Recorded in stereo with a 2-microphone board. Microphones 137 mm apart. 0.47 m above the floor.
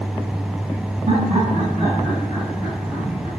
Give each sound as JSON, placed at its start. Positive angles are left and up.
{"t": 1.1, "sound": "laughter", "side_deg": -40, "distance_m": 4.5}